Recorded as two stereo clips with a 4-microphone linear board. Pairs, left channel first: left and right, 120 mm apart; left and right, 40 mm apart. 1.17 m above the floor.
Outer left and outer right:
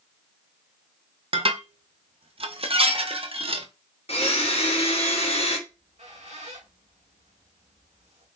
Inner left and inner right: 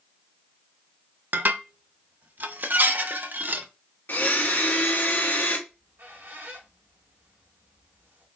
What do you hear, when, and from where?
1.3 s dishes clattering: 50° right (ahead or behind), 0.7 m
4.1 s a blender: 55° left (ahead or behind), 1.2 m
5.7 s a squeak: 70° right (ahead or behind), 1.7 m